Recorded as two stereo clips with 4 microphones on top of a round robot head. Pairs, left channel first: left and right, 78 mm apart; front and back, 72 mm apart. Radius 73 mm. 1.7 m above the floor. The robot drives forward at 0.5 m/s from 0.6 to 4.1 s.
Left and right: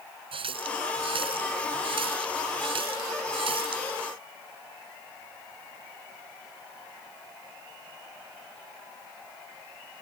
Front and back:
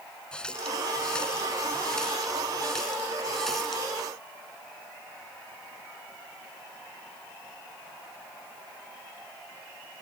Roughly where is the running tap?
Right.